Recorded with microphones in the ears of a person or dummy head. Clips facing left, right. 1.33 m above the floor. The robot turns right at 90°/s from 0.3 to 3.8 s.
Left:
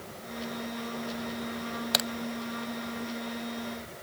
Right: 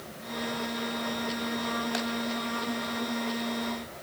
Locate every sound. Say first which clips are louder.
1.9 s a crack: right 2 dB; 45° left (ahead or behind); by 2.1 s 55° left (ahead or behind)